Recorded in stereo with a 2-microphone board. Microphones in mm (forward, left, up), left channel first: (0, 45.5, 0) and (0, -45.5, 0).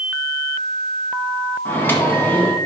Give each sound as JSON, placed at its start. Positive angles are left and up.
{"t": 1.6, "sound": "a microwave", "side_deg": 20, "distance_m": 1.3}